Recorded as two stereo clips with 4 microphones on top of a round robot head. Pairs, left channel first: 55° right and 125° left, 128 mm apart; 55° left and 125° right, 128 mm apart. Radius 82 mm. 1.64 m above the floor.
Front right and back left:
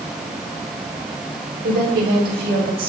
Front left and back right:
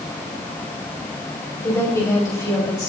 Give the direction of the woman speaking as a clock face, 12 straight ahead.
8 o'clock.